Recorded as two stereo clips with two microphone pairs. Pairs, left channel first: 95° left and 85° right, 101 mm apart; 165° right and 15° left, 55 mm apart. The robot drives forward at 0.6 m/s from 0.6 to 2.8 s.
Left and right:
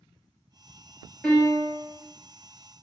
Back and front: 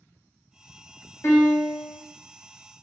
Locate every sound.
1.2 s a piano: 165° left, 1.6 m; by 2.0 s 170° left, 2 m